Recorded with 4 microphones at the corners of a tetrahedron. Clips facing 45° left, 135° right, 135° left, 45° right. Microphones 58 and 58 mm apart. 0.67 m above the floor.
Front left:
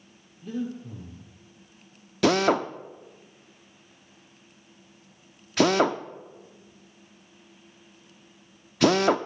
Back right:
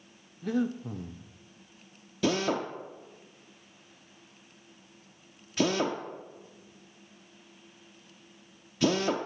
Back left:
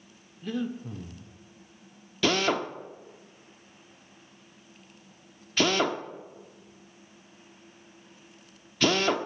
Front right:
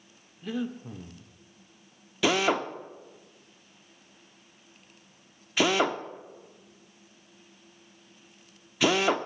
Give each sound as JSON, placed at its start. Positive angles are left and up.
{"t": 0.4, "sound": "breathing", "azimuth_deg": -130, "distance_m": 0.7}
{"t": 2.2, "sound": "a drill", "azimuth_deg": 35, "distance_m": 0.6}